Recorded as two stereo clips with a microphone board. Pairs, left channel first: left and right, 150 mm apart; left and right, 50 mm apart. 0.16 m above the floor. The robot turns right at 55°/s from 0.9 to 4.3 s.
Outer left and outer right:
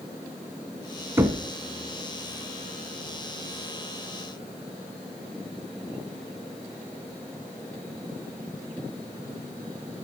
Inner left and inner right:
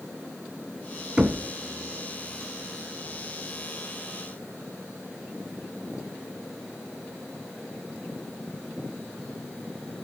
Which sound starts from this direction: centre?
Knocking, at 1.2 s.